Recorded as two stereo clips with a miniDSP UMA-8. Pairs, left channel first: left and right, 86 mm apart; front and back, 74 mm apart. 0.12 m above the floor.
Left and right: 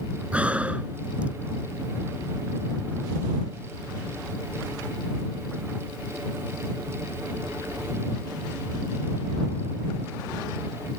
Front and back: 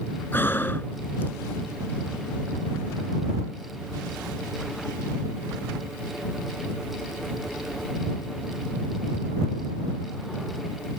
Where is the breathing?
30° right.